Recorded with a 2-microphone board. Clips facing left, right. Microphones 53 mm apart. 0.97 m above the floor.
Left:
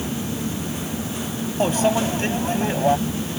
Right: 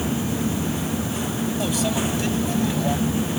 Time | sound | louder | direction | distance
1.6 | a microwave | left 7 dB | 40° left (ahead or behind) | ?